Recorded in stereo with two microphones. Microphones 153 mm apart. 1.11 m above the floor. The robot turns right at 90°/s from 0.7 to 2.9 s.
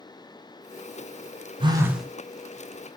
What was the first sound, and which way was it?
A phone buzzing, 40° right.